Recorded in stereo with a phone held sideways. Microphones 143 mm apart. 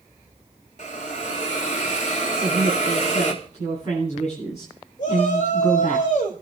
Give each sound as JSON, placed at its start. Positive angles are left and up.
{"t": 0.8, "sound": "a hiss", "side_deg": 60, "distance_m": 2.5}
{"t": 2.3, "sound": "a woman speaking", "side_deg": 55, "distance_m": 9.5}
{"t": 5.0, "sound": "a shout", "side_deg": 65, "distance_m": 5.0}